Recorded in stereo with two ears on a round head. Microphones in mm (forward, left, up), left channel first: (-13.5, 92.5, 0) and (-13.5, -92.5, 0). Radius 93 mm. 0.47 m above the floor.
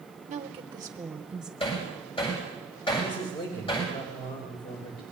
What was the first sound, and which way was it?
A woman speaking, 40° right (ahead or behind).